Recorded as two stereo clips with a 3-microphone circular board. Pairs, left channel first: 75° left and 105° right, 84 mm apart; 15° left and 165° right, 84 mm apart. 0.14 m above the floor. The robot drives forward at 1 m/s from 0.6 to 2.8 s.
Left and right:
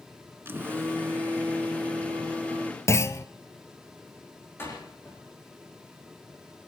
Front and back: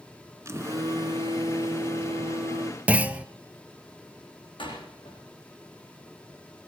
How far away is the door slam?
About 8 m.